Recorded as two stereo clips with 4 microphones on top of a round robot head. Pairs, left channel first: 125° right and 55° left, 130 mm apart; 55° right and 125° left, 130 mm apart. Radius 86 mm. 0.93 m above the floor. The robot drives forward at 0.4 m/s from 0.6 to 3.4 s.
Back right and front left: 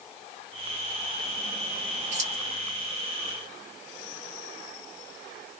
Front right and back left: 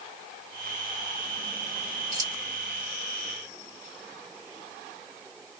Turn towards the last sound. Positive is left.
turn(degrees=105)